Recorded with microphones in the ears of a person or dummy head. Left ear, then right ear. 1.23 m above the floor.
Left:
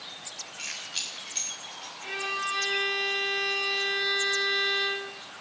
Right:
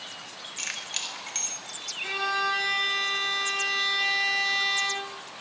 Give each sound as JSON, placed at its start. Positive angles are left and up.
{"t": 0.6, "sound": "keys jangling", "side_deg": -55, "distance_m": 1.5}
{"t": 2.0, "sound": "a violin", "side_deg": -75, "distance_m": 9.5}